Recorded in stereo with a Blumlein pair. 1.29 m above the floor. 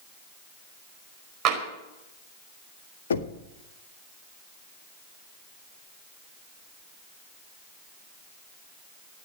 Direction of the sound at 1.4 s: 35° right.